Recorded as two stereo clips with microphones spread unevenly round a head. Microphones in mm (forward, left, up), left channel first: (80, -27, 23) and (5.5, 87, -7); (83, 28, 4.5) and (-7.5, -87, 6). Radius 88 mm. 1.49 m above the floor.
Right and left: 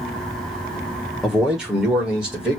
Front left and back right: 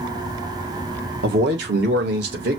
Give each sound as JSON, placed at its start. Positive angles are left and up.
{"t": 1.2, "sound": "a man speaking", "azimuth_deg": -145, "distance_m": 1.0}